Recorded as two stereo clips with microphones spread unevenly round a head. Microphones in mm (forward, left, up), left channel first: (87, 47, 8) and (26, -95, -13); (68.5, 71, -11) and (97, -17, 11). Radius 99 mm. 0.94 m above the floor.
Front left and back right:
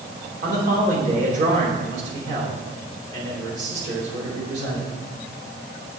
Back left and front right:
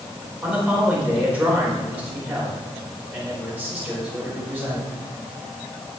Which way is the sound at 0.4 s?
165° right.